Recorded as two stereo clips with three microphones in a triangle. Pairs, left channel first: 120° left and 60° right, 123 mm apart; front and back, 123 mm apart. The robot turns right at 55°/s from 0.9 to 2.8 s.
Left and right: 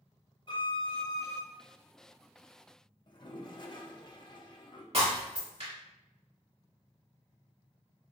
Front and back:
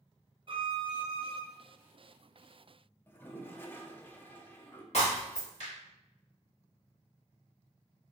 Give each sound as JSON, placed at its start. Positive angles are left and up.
{"t": 0.5, "sound": "a violin", "azimuth_deg": 155, "distance_m": 0.7}
{"t": 3.1, "sound": "a toilet flushing", "azimuth_deg": 75, "distance_m": 0.5}
{"t": 4.9, "sound": "breaking glass", "azimuth_deg": -30, "distance_m": 2.0}